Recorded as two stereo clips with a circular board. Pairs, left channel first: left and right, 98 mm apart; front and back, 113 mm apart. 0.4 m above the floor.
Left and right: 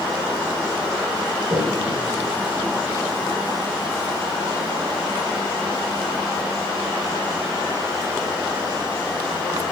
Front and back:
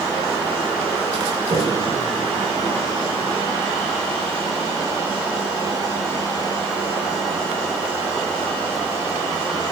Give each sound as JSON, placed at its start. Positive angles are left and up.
{"t": 1.5, "sound": "a toilet flushing", "azimuth_deg": -120, "distance_m": 8.5}